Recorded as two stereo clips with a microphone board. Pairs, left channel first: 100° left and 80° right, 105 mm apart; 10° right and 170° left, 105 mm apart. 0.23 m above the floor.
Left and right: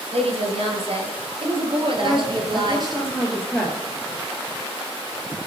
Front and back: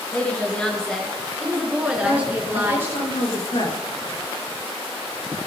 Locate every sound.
0.1 s a woman speaking: 85° right, 3.5 m; by 3.0 s 125° right, 3.5 m
2.0 s a woman speaking: 15° left, 4 m